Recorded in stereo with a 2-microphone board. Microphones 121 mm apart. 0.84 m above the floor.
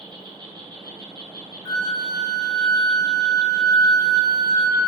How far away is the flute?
About 1.3 m.